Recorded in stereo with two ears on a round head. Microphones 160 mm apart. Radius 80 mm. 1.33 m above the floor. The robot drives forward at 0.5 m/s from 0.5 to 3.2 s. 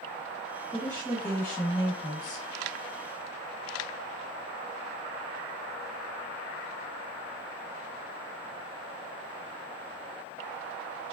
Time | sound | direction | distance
0.7 | a woman speaking | 15° left (ahead or behind) | 1.8 m